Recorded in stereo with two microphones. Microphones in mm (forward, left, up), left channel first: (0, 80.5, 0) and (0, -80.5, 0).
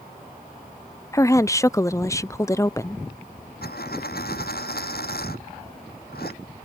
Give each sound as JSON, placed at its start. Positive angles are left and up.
{"t": 1.1, "sound": "a woman speaking", "side_deg": 20}
{"t": 3.6, "sound": "a dropped coin", "side_deg": 80}